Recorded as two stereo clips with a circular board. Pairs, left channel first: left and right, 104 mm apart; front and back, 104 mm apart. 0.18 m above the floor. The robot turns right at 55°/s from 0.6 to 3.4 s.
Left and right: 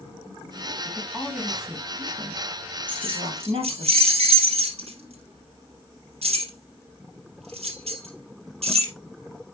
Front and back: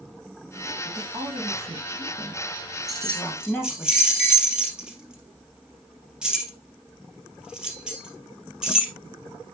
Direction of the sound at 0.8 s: 155° left.